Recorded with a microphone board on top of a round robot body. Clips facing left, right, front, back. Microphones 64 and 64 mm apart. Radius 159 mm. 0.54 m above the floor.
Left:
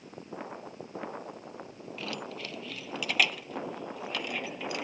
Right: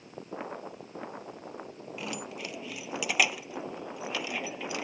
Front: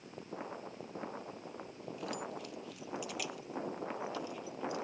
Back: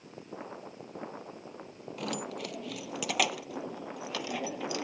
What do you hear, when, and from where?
2.0 s keys jangling: 160° right; by 4.9 s 175° right